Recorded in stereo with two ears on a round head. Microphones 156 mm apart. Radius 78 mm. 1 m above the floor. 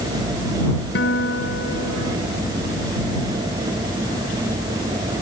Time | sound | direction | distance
0.9 | a guitar | 70° left (ahead or behind) | ?